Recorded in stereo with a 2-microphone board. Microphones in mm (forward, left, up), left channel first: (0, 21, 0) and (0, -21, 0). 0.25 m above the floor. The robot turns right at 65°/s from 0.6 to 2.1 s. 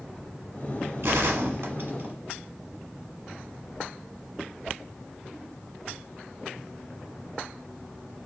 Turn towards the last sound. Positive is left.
turn(degrees=-40)